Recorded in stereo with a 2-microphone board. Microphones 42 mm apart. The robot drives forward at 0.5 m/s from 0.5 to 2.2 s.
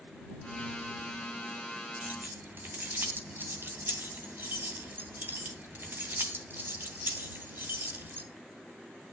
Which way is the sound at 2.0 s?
50° right (ahead or behind).